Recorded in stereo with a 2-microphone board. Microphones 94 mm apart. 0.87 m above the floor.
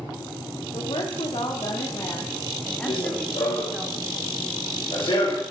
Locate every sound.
0.7 s a woman speaking: 75° left (ahead or behind), 1.8 m; by 3.9 s 15° right (ahead or behind), 2 m
2.9 s running footsteps: 60° left (ahead or behind), 1.7 m